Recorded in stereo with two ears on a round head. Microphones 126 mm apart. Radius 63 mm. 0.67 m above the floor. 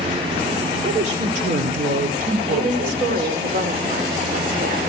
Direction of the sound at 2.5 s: 65° right (ahead or behind).